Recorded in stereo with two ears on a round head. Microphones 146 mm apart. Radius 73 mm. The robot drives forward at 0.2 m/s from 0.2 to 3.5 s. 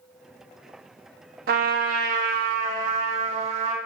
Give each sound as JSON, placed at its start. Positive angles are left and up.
{"t": 1.5, "sound": "a trumpet", "side_deg": -60, "distance_m": 0.9}